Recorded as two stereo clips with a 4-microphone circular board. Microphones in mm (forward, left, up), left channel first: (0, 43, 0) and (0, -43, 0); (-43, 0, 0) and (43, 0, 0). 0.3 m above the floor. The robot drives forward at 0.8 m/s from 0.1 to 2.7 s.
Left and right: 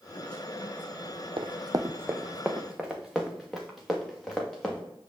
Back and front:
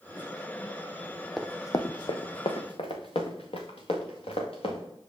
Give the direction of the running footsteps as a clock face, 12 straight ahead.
3 o'clock.